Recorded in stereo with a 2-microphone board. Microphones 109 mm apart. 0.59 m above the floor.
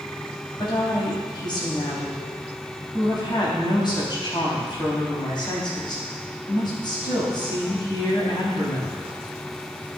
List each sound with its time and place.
0.6 s a woman speaking: 45° left (ahead or behind), 4 m